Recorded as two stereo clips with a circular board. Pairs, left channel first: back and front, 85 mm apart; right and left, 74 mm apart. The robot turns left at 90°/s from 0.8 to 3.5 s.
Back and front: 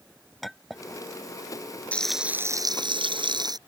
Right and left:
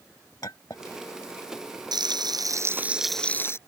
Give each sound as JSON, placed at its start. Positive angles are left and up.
{"t": 0.4, "sound": "a clink", "azimuth_deg": -90}
{"t": 1.9, "sound": "frying", "azimuth_deg": 105}